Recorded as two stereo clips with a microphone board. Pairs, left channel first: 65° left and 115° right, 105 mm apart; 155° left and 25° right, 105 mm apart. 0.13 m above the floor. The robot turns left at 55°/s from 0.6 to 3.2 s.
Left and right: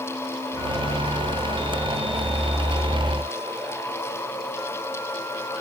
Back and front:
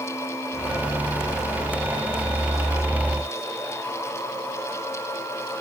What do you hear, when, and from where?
Only background noise.